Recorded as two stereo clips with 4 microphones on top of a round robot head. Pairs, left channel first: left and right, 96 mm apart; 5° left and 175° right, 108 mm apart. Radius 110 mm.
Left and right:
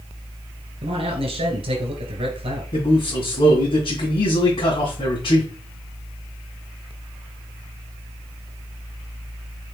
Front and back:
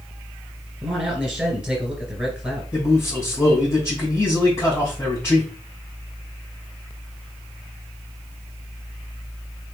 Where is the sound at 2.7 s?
65° left, 2.5 m.